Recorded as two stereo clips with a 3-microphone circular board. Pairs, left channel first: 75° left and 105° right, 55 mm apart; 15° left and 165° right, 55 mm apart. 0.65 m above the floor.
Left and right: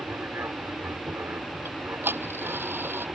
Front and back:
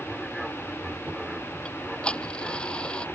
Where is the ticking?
55° right.